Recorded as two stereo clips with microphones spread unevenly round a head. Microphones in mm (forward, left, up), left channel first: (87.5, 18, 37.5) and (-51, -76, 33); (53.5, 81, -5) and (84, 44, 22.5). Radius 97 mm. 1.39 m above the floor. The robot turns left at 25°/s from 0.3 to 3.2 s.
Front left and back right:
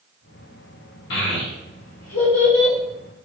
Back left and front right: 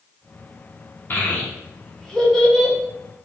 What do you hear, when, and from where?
1.1 s a child speaking: 70° left, 0.9 m; by 2.8 s 30° left, 0.9 m